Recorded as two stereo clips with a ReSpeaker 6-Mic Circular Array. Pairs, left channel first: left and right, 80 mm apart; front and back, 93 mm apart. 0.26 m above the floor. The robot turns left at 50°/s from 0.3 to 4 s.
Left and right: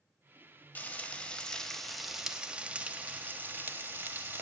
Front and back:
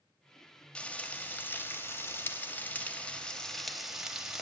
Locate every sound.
0.8 s frying: 60° left, 0.8 m; by 4.4 s 100° right, 0.8 m